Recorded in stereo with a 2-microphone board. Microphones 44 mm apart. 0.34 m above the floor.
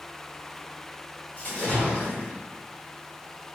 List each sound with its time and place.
1.4 s a splash: 40° left (ahead or behind), 1.8 m